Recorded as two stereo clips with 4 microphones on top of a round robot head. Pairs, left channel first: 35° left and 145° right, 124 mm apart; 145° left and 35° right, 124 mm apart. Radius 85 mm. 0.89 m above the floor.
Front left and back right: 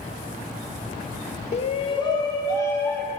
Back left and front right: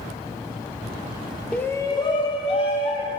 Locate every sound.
1.5 s a shout: 60° left, 0.7 m; by 3.1 s 110° left, 1.8 m